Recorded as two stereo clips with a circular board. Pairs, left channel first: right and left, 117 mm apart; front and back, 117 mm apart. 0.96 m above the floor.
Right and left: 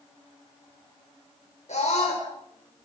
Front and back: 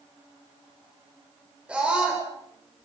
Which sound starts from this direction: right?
A scream, at 1.7 s.